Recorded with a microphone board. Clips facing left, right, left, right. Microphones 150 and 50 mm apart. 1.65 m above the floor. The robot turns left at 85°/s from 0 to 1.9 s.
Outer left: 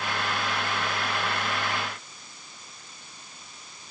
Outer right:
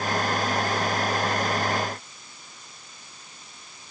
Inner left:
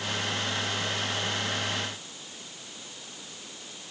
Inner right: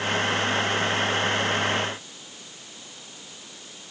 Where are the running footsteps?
No running footsteps in this recording.